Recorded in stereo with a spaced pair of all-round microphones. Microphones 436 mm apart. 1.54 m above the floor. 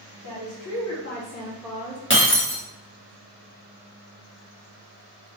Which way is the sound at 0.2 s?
55° left (ahead or behind).